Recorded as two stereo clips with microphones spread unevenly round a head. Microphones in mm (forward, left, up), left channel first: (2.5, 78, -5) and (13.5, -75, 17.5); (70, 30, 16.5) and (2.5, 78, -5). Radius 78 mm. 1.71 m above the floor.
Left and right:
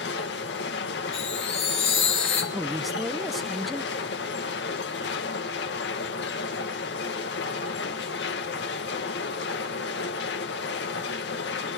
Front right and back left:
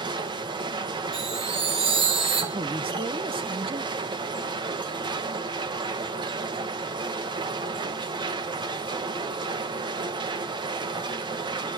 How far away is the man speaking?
About 0.9 m.